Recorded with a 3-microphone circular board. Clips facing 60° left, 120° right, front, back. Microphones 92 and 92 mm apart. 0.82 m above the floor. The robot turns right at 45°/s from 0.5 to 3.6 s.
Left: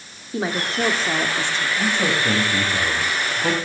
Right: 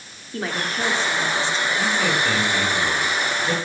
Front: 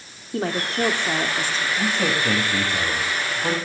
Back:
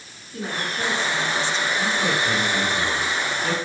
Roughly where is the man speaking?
Ahead.